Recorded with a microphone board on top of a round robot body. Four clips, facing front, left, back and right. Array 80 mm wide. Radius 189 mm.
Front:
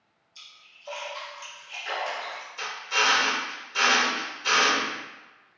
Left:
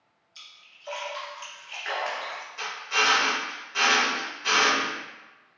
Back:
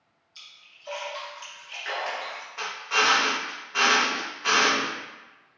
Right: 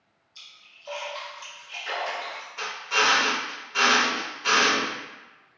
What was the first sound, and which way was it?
A splash, 125° left.